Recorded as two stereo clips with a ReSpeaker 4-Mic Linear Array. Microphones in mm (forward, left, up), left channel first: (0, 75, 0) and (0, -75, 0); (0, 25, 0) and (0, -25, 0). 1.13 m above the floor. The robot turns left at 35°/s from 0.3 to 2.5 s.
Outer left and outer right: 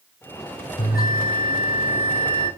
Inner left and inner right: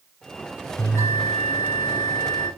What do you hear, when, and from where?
0.8 s a bell: 95° left, 8 m; by 2.5 s 35° left, 8 m